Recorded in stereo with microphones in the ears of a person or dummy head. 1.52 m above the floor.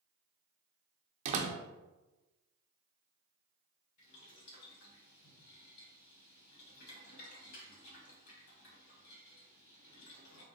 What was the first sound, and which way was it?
A door slam, 40° right (ahead or behind).